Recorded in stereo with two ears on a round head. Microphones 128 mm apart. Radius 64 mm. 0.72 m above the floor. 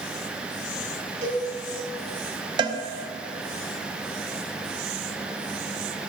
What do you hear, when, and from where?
1.2 s a cowbell: 65° right (ahead or behind), 3.5 m
2.6 s a cowbell: 30° right (ahead or behind), 0.6 m